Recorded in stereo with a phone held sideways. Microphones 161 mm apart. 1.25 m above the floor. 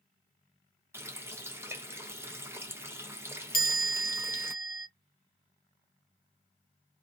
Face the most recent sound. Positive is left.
turn(degrees=60)  # may be behind; listen again after turning